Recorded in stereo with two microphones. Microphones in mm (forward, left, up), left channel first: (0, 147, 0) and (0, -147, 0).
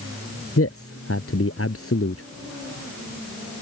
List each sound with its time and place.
0.6 s a man speaking: 50° left (ahead or behind)